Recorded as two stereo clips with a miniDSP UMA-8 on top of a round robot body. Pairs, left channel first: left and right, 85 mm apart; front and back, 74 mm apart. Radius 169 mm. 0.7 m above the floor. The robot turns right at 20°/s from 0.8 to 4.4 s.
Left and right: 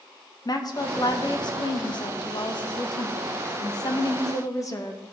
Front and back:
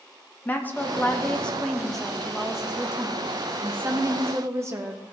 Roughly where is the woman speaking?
Ahead left.